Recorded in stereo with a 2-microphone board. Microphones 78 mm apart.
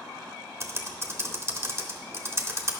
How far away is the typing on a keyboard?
About 1.0 m.